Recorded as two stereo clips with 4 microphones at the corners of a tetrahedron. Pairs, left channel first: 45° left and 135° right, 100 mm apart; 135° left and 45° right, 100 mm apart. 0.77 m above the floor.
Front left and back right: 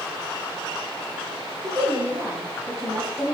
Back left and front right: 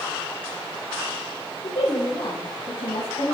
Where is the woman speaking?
170° left, 3 m; by 3.3 s 140° left, 4.5 m.